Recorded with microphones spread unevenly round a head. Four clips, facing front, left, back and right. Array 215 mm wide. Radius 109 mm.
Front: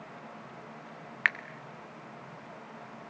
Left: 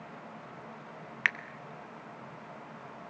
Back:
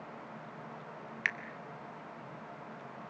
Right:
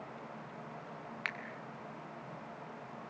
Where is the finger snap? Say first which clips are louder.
Left 10 dB, front 7 dB; 50° left, 1.3 m.